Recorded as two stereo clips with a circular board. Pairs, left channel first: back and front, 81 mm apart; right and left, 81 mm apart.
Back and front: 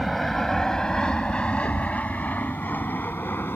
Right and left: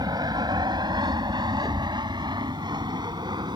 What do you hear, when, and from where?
0.0 s an aircraft: 90° left; by 3.6 s 115° left
1.6 s a thud: 170° right